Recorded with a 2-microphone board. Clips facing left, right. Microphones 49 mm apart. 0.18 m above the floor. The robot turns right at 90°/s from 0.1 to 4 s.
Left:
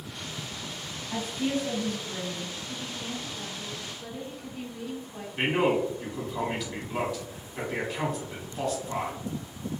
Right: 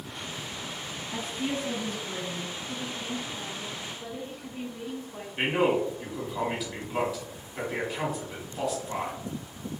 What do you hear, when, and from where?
1.1 s a woman speaking: 115° left, 1.4 m; by 2.6 s 110° right, 1.4 m
2.7 s a woman speaking: 130° left, 1.4 m; by 5.3 s 110° right, 1.4 m
5.4 s a man speaking: 5° right (ahead or behind), 1.3 m